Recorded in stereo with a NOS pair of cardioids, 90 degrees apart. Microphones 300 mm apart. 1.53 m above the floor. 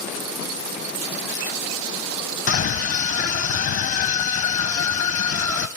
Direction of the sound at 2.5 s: 50° left.